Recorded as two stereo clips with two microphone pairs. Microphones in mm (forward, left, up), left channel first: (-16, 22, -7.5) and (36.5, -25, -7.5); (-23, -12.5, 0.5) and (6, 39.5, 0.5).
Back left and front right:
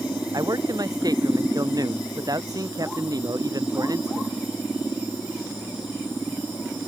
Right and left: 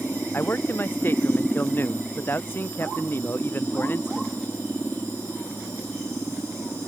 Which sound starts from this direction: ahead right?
A man speaking, at 0.3 s.